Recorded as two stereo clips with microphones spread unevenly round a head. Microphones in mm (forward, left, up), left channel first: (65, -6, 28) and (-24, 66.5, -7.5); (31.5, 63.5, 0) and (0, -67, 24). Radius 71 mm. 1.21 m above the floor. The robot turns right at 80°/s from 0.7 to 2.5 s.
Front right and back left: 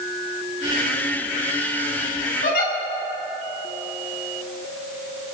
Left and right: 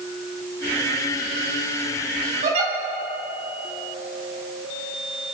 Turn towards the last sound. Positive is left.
turn(degrees=-60)